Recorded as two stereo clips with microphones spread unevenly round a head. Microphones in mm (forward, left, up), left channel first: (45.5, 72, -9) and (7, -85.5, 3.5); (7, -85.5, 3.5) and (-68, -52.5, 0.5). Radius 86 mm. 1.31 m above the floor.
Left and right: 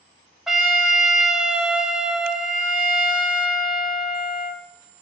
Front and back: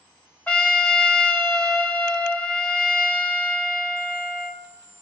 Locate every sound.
0.5 s a trumpet: 35° right, 1.1 m